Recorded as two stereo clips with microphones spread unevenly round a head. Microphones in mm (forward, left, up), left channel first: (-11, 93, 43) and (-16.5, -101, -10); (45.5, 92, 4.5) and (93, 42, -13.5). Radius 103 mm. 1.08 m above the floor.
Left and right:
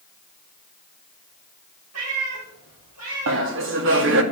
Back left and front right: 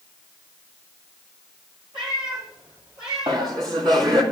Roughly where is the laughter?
Right.